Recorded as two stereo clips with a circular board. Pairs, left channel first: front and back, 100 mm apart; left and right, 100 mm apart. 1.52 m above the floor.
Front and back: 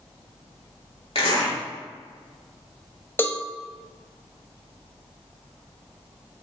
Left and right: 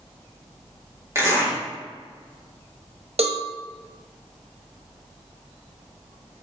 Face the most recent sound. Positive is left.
turn(degrees=-70)